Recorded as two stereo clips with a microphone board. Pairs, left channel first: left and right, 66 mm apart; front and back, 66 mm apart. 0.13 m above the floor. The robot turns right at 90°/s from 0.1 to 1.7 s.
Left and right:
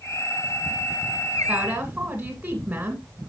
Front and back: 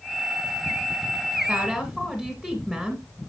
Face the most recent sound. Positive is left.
turn(degrees=-85)